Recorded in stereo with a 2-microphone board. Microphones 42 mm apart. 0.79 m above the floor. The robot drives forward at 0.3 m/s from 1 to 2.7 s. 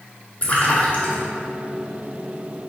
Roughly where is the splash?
Left.